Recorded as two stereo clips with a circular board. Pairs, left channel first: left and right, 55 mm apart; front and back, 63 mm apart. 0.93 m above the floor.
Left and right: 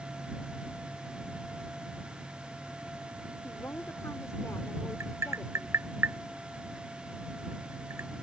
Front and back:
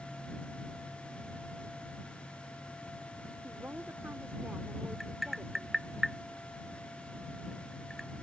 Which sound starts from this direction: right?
Tapping, at 5.0 s.